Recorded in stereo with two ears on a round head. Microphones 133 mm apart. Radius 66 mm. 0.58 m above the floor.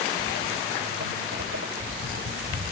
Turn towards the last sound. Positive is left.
turn(degrees=-75)  # may be behind; listen again after turning